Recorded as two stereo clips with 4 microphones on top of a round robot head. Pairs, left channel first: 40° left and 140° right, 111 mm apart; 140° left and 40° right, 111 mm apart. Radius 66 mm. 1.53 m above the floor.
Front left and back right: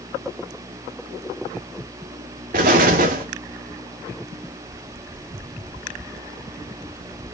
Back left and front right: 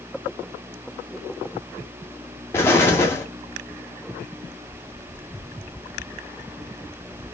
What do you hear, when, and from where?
2.5 s an explosion: 150° right, 2.0 m